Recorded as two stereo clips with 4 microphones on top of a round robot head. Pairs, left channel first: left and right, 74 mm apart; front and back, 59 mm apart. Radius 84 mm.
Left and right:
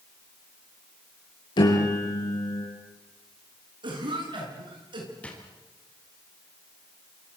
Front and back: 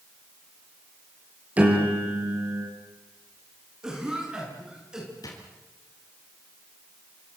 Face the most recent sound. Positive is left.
turn(degrees=15)